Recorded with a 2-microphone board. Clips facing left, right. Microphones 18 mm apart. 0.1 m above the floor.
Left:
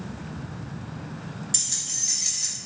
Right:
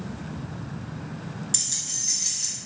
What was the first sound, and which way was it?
Keys jangling, 10° right (ahead or behind).